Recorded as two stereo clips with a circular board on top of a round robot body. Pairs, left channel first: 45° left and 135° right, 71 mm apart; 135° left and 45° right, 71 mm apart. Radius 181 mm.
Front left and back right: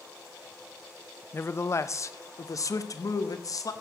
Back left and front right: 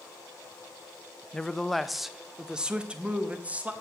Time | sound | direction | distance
1.3 | a man speaking | 65° left | 0.9 m